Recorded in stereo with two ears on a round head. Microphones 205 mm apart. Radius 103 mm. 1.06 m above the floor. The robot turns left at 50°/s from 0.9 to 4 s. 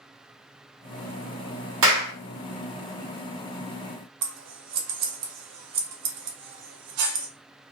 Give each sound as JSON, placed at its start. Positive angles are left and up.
{"t": 1.8, "sound": "a clap", "side_deg": -60, "distance_m": 1.9}
{"t": 4.2, "sound": "scissors", "side_deg": -80, "distance_m": 1.0}